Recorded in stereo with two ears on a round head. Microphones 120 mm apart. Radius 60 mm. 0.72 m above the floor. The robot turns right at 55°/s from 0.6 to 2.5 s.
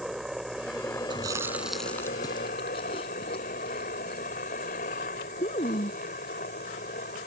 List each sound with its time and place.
0.0 s a helicopter: 5° right; by 7.3 s 100° left
1.1 s chewing: 35° right (ahead or behind); by 6.0 s 40° left (ahead or behind)